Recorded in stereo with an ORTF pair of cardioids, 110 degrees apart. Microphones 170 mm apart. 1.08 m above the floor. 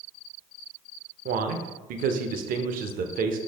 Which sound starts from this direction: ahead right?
A man speaking, at 1.2 s.